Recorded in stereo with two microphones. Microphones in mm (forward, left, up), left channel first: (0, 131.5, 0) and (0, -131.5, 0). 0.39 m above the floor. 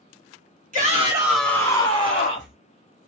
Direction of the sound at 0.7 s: 30° right (ahead or behind).